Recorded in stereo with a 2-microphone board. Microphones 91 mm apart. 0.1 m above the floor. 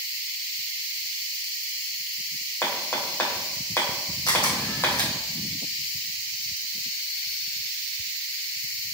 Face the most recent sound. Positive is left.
turn(degrees=50)  # may be behind; listen again after turning